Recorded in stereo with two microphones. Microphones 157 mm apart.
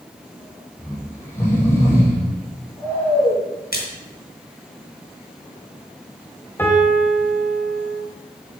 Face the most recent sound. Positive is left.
turn(degrees=15)  # may be behind; listen again after turning